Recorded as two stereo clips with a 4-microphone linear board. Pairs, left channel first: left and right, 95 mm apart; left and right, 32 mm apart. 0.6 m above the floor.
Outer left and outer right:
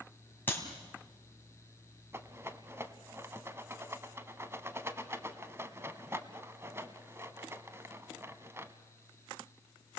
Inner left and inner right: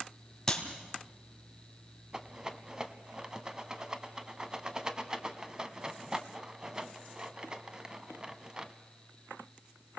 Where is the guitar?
No guitar in this recording.